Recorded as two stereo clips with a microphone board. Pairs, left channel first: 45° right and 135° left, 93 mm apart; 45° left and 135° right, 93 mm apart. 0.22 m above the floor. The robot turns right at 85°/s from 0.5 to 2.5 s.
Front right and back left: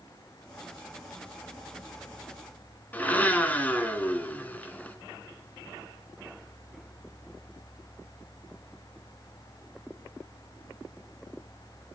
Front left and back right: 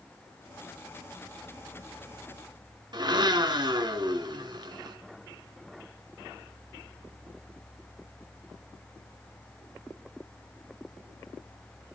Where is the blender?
115° right, 1.5 m.